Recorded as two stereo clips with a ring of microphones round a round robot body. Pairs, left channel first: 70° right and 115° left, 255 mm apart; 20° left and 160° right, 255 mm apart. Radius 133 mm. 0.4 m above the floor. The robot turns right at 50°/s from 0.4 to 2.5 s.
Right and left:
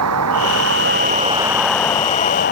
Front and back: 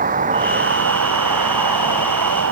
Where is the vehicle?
140° left; by 2.5 s 120° right.